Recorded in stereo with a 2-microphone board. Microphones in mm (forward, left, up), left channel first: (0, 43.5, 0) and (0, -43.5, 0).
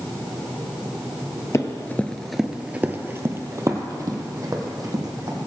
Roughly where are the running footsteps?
Left.